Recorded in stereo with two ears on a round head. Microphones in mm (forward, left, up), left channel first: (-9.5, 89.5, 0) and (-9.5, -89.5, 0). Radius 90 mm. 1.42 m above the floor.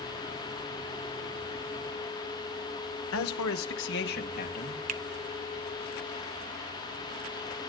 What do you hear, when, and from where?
3.1 s a man speaking: 75° left (ahead or behind), 1.2 m; by 4.8 s 40° left (ahead or behind), 3 m
4.9 s a finger snap: 40° right (ahead or behind), 0.9 m